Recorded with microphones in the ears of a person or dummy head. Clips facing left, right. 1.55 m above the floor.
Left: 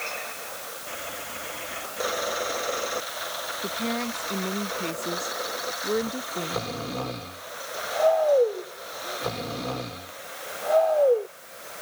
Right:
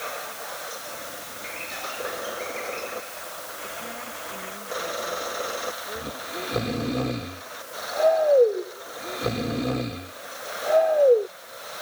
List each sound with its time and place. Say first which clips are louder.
3.6 s a woman speaking: left 11 dB; 75° left (ahead or behind); by 7.0 s 70° left (ahead or behind)
6.0 s snoring: left 6 dB; 30° right (ahead or behind)